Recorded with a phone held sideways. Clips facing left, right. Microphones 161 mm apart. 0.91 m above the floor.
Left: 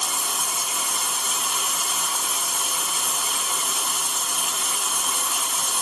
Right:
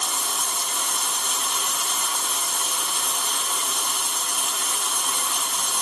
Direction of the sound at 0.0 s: 5° left (ahead or behind).